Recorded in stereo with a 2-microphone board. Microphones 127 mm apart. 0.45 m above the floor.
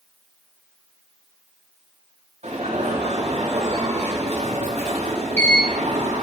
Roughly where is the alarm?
Right.